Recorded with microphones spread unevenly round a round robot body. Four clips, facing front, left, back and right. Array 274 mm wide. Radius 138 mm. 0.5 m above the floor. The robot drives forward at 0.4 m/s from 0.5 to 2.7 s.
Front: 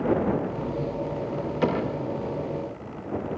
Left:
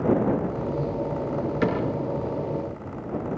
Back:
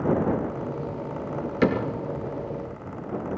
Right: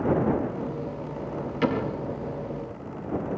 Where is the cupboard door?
150° left, 4.5 m.